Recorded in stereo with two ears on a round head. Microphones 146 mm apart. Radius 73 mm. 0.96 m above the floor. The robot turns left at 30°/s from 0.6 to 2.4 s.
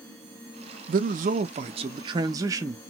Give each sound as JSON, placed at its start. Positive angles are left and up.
{"t": 0.9, "sound": "a man speaking", "azimuth_deg": -110, "distance_m": 0.5}